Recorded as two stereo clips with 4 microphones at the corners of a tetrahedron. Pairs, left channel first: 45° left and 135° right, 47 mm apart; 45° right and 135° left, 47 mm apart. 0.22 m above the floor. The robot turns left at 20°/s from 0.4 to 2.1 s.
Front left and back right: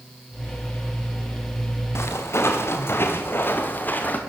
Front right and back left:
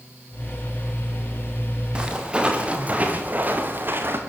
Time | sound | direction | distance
1.9 | footsteps | 70° left | 6 m